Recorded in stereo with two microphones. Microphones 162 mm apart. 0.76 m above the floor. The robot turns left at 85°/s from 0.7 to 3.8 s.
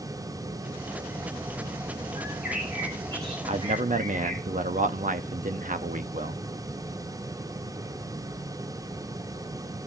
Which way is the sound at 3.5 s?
40° right (ahead or behind).